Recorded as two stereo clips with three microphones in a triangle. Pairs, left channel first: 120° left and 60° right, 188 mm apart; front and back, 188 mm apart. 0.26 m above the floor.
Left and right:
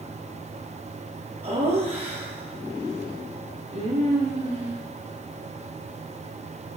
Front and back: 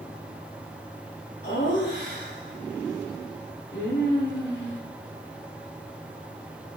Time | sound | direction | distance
1.4 | laughter | 30° right | 4.5 m